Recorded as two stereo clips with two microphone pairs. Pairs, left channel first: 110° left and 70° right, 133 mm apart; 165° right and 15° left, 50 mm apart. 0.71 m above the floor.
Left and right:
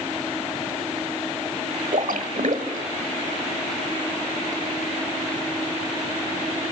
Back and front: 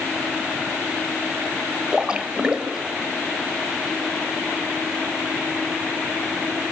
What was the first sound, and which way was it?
A splash, 60° right.